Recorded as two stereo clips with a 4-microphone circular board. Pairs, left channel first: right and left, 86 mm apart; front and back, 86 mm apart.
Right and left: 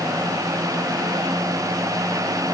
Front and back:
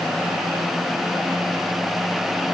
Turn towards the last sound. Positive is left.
No sound to turn to.